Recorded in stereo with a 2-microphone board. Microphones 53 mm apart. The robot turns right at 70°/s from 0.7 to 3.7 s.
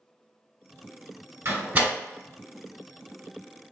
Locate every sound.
1.4 s a door slam: 50° right (ahead or behind), 1.0 m; by 1.9 s 25° right (ahead or behind), 1.0 m